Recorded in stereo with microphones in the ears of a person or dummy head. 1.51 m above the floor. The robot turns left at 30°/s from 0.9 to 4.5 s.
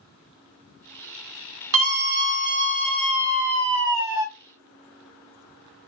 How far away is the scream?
About 1.3 m.